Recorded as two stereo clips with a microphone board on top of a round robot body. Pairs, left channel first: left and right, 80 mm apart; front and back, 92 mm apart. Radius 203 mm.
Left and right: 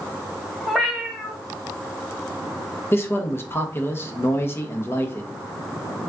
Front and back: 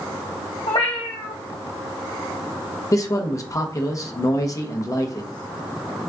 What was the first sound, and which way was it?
A cat meowing, straight ahead.